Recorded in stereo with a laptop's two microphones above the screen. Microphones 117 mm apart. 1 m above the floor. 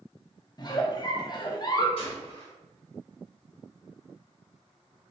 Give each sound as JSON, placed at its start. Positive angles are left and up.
{"t": 0.6, "sound": "a giggle", "side_deg": 35, "distance_m": 0.5}
{"t": 2.0, "sound": "a gunshot", "side_deg": 50, "distance_m": 1.8}